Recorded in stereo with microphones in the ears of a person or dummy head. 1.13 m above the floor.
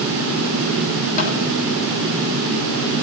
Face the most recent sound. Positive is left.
turn(degrees=40)  # may be behind; listen again after turning